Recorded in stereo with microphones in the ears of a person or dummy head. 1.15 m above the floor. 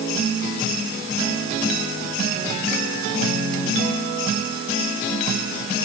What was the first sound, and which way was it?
Only background noise.